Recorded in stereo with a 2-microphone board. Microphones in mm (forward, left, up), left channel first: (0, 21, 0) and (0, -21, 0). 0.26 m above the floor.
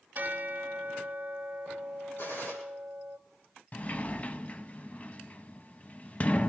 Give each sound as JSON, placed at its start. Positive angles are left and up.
{"t": 0.1, "sound": "a bell", "side_deg": -45, "distance_m": 0.8}
{"t": 2.2, "sound": "a gunshot", "side_deg": 70, "distance_m": 7.5}
{"t": 3.7, "sound": "a sliding door", "side_deg": 30, "distance_m": 0.6}